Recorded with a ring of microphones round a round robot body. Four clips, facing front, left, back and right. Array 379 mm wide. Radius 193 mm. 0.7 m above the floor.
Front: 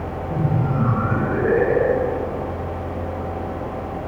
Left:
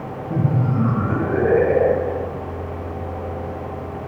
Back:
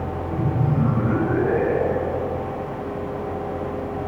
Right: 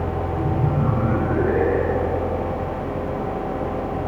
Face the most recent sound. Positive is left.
turn(degrees=55)